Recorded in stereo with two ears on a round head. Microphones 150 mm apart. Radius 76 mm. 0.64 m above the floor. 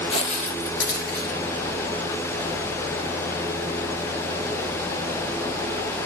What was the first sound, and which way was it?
Footsteps, 35° left (ahead or behind).